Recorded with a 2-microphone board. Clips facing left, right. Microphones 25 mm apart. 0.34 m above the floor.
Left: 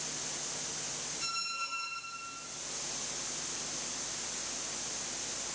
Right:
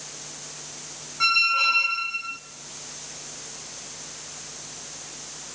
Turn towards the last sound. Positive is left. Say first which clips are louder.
# right 19 dB
turn(degrees=-70)  # may be behind; listen again after turning